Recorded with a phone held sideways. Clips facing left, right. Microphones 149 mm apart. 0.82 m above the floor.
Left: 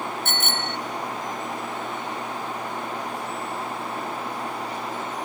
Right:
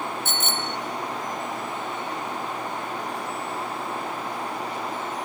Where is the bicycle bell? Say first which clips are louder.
Even; 70° left (ahead or behind).